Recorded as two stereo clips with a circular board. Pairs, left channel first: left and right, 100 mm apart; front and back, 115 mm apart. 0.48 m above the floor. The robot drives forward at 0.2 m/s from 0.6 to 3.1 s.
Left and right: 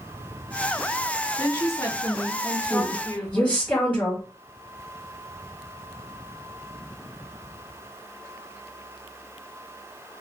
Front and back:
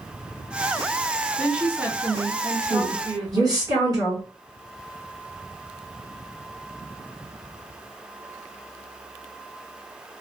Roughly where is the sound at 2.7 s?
Behind left.